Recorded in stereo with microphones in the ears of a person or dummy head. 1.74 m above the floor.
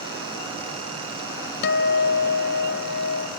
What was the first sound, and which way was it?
A guitar, 60° left (ahead or behind).